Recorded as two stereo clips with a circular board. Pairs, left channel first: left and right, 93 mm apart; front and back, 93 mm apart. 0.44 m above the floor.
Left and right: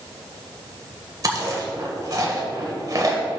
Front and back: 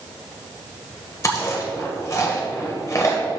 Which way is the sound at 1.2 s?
50° right.